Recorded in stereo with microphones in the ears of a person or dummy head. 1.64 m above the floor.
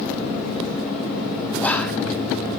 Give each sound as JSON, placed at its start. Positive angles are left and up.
{"t": 1.6, "sound": "whispering", "side_deg": 15, "distance_m": 2.5}